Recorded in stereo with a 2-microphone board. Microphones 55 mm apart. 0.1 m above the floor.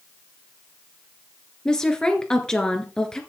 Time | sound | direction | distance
1.6 | a woman speaking | 15° left (ahead or behind) | 1.8 m